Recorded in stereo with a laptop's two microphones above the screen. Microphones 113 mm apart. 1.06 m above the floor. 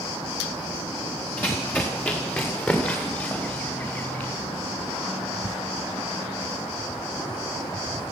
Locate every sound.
1.4 s running footsteps: 15° left (ahead or behind), 6.5 m